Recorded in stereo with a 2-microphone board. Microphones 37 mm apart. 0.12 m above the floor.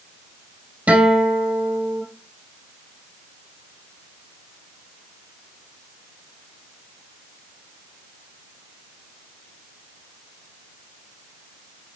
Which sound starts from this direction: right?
A guitar, at 0.9 s.